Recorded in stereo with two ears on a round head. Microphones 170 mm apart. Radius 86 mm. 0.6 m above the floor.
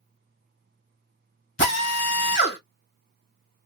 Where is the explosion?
I don't hear an explosion.